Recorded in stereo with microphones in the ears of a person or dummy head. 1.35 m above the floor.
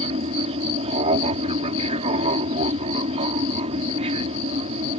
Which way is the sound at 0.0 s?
30° right (ahead or behind).